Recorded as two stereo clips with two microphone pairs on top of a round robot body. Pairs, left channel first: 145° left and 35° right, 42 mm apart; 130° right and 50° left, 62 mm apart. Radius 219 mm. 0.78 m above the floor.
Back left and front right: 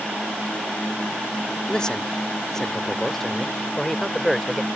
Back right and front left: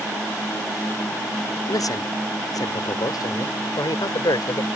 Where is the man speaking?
140° right; by 4.7 s 130° right.